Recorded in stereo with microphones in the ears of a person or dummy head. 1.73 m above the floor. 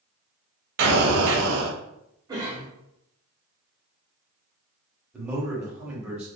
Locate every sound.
0.8 s an explosion: 65° right (ahead or behind), 0.7 m
2.3 s a cough: 25° right (ahead or behind), 0.9 m
5.1 s a man speaking: 10° right (ahead or behind), 1.0 m